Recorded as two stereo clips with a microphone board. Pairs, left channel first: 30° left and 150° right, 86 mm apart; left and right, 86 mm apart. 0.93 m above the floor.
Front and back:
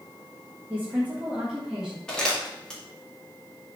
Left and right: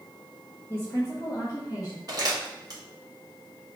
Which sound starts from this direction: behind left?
A woman speaking, at 0.7 s.